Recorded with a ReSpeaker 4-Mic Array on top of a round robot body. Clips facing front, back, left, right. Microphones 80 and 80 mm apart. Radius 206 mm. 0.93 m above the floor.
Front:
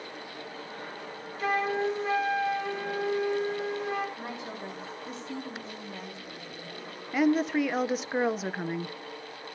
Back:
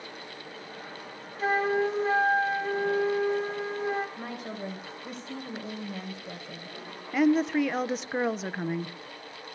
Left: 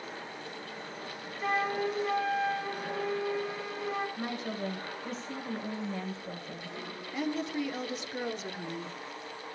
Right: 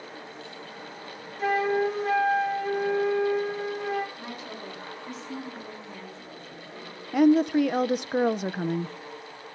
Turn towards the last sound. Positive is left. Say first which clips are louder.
# back 1 dB, right 14 dB
turn(degrees=-90)